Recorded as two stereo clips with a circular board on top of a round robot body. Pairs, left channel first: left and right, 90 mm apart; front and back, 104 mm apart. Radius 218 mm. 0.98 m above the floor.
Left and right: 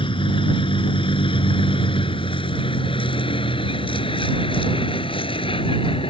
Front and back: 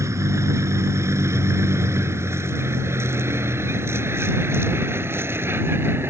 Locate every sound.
0.0 s a vehicle: 115° left; by 6.1 s 110° left